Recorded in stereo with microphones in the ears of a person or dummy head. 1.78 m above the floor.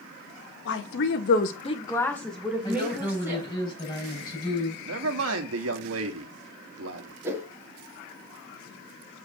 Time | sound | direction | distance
0.7 | a woman speaking | 65° left (ahead or behind) | 1.6 m
2.6 | a woman speaking | 25° left (ahead or behind) | 6.5 m
4.8 | a man speaking | 75° right (ahead or behind) | 1.6 m
7.2 | a whoosh | 10° right (ahead or behind) | 2 m